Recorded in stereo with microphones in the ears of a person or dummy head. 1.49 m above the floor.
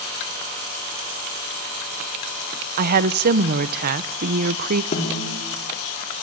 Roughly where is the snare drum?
Left.